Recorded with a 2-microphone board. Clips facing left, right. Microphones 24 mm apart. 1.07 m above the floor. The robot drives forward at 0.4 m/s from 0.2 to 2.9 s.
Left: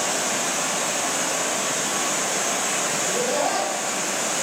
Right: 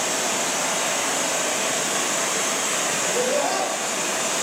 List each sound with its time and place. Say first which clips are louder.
0.0 s running water: even; 60° right (ahead or behind), 1.4 m; by 4.4 s 75° right (ahead or behind), 1.3 m
3.0 s laughter: right 1 dB; 10° left (ahead or behind), 1.6 m